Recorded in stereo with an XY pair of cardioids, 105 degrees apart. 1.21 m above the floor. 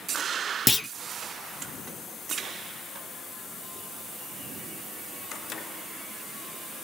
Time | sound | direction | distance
0.7 | a clunk | 20° left | 0.5 m